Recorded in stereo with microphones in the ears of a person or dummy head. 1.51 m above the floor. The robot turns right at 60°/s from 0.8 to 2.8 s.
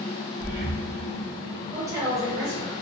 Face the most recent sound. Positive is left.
turn(degrees=-105)